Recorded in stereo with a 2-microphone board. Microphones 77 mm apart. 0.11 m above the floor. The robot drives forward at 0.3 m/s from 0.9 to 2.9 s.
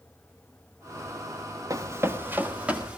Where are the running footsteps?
50° right (ahead or behind), 1.2 m; by 3.0 s 10° right (ahead or behind), 2 m.